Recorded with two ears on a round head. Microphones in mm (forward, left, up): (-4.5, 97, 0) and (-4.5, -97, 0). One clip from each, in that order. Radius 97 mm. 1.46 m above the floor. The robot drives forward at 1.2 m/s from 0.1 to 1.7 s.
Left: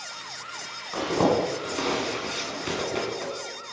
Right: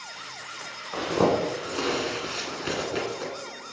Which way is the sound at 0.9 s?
Centre (ahead or behind).